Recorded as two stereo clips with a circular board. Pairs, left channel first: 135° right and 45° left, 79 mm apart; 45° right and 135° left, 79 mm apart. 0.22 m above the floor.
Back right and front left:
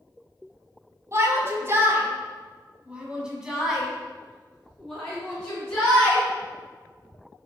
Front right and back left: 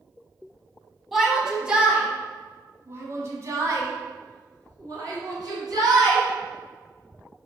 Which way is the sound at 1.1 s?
50° left.